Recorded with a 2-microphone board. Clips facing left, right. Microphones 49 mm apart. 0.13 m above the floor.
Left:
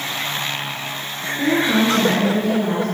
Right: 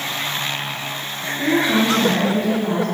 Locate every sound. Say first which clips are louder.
1.4 s a woman speaking: even; 35° left (ahead or behind), 1.6 m